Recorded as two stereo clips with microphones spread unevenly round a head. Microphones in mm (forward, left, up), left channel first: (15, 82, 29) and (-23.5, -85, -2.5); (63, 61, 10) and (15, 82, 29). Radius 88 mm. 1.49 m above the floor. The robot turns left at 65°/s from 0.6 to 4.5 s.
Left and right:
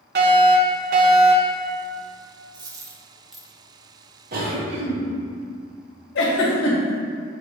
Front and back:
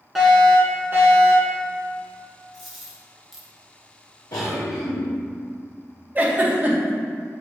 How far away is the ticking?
No ticking in this recording.